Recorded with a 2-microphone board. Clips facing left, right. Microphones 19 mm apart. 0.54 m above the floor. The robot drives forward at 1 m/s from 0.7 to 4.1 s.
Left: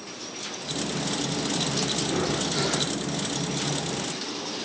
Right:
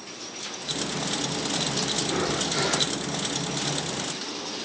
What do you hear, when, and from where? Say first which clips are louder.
2.0 s breathing: even; 10° right (ahead or behind), 1.5 m; by 2.9 s 15° right (ahead or behind), 1.0 m